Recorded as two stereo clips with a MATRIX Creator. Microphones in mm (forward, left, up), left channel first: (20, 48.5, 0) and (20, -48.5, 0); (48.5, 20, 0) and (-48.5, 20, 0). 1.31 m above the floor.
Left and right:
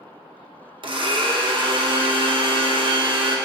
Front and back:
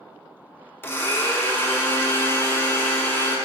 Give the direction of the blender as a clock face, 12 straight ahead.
2 o'clock.